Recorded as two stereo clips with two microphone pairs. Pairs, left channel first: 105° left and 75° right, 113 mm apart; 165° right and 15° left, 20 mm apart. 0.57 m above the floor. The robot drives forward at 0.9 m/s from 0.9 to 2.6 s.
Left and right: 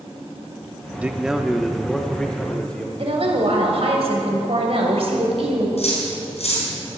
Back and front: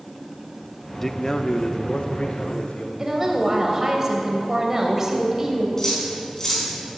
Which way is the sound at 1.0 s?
135° right.